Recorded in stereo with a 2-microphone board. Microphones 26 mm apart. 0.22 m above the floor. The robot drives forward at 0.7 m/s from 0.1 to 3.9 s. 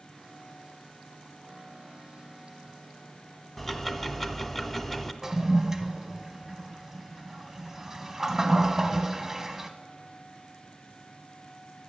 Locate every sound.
3.6 s ticking: 5° left (ahead or behind), 0.6 m; by 5.1 s 10° left (ahead or behind), 0.5 m
5.2 s a toilet flushing: 15° right (ahead or behind), 0.6 m